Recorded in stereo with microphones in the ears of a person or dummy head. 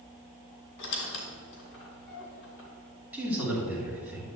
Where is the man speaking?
5° right (ahead or behind), 3 m.